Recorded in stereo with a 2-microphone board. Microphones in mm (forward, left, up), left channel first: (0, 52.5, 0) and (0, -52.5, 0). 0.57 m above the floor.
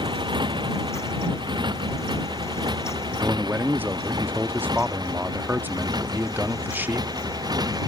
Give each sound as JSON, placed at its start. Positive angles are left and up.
{"t": 0.0, "sound": "a motorcycle", "side_deg": -45}
{"t": 3.2, "sound": "a man speaking", "side_deg": -20}